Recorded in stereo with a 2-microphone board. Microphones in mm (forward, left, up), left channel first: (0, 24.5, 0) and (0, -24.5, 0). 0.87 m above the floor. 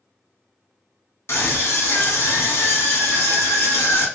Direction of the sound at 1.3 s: 60° left (ahead or behind).